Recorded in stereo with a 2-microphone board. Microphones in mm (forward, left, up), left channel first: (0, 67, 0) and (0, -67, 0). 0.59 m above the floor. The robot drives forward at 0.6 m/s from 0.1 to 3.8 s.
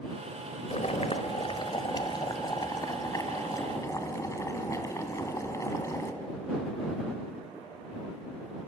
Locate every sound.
0.7 s boiling: 55° left (ahead or behind), 1.3 m; by 6.1 s 25° left (ahead or behind), 3 m